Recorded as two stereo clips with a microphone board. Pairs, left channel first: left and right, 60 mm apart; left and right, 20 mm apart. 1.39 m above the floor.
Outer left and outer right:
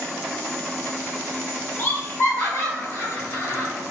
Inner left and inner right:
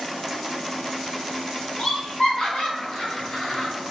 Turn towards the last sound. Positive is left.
turn(degrees=70)  # may be behind; listen again after turning